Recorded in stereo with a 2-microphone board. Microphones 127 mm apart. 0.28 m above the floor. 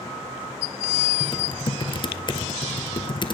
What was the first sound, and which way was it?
Typing on a keyboard, 40° left (ahead or behind).